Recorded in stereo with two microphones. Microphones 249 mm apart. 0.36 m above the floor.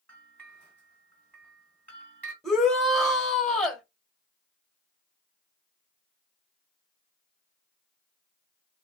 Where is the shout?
Centre (ahead or behind), 1.2 m.